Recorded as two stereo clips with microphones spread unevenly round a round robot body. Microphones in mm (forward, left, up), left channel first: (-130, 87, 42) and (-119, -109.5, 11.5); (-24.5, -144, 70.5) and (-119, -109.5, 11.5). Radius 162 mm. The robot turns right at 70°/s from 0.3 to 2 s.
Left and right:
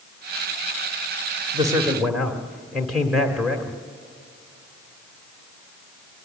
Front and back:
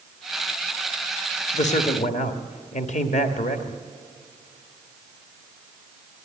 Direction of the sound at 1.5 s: 35° right.